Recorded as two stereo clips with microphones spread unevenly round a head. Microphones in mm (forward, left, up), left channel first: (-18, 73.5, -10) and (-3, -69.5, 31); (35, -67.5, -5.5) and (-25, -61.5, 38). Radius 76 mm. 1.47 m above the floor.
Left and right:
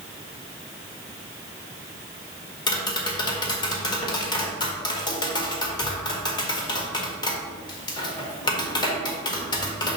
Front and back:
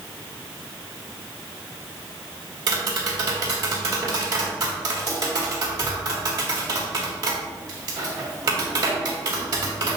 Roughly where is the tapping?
Behind.